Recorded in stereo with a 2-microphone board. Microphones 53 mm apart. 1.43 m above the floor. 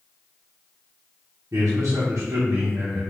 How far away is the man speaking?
About 1.0 m.